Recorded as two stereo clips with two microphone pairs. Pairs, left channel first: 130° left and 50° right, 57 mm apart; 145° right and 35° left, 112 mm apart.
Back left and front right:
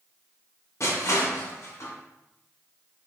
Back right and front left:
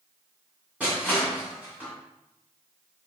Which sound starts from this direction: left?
Crushing, at 0.8 s.